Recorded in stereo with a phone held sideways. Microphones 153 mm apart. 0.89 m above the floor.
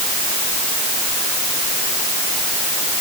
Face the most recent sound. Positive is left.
No sound to turn to.